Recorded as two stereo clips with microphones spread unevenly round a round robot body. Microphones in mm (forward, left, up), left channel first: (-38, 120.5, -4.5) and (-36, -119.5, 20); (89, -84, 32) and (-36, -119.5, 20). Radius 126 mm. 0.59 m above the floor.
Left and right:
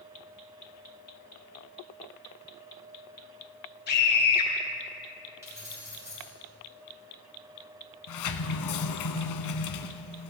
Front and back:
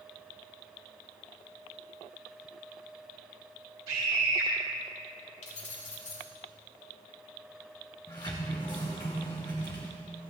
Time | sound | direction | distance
3.9 | a scream | 140° left | 5 m
5.4 | keys jangling | 10° right | 5.5 m
8.1 | a sliding door | 85° left | 1.0 m